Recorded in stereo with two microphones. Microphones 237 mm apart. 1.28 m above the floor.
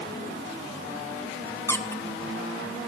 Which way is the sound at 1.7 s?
10° left (ahead or behind).